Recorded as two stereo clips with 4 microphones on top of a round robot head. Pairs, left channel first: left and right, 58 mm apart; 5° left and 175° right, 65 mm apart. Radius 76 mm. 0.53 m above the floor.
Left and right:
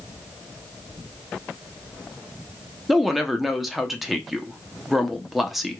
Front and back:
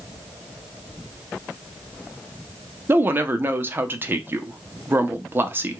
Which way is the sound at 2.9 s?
175° right.